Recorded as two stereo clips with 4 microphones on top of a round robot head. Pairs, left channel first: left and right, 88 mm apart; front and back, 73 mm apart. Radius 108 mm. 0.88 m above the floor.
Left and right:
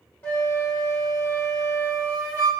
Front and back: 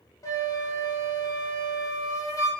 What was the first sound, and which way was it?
A flute, 30° left.